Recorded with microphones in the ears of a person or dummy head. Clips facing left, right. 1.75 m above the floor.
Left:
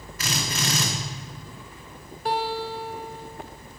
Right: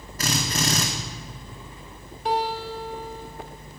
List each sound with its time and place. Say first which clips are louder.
0.2 s a drill: right 3 dB; 30° right (ahead or behind), 1.8 m
2.2 s a guitar: right 1 dB; 10° left (ahead or behind), 1.7 m